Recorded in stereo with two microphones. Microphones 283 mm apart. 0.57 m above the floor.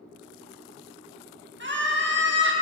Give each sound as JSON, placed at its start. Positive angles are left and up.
{"t": 1.6, "sound": "a scream", "side_deg": -40, "distance_m": 0.9}